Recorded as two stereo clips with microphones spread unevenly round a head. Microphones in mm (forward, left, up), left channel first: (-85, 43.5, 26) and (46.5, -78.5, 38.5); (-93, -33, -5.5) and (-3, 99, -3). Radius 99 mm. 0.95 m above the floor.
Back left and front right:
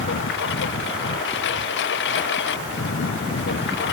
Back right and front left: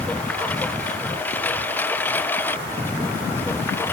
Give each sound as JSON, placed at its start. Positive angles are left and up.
{"t": 0.0, "sound": "a lawn mower", "azimuth_deg": 155}